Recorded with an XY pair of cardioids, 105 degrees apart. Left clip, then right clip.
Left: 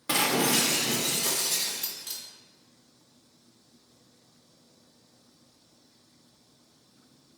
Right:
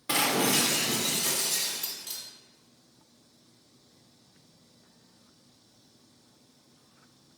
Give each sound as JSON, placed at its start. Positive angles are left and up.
{"t": 0.1, "sound": "breaking glass", "azimuth_deg": 20, "distance_m": 1.6}